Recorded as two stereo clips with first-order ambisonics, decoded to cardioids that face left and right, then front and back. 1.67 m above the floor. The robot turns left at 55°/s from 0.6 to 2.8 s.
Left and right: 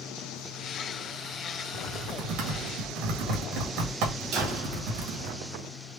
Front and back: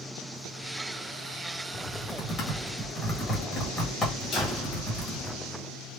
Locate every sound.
1.7 s typing on a keyboard: 20° right, 2 m; by 5.3 s 80° right, 2 m
4.3 s a door slam: 65° right, 1.9 m